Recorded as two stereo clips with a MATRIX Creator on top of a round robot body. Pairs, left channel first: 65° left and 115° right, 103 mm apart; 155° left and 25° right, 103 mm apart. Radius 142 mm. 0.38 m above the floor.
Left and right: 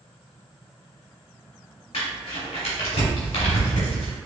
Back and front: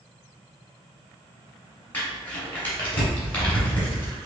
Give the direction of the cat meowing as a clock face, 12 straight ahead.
I don't hear a cat meowing.